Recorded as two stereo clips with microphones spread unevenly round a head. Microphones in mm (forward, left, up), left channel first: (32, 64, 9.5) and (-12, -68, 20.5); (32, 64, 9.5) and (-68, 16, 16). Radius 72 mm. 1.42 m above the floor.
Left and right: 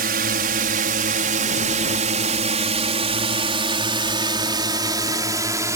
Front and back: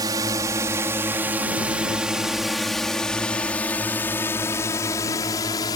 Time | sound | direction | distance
0.0 | a drone | 90° right | ?